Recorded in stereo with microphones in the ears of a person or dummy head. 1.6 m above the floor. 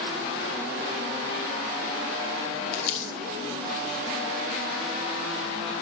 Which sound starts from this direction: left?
Crumpling, at 2.7 s.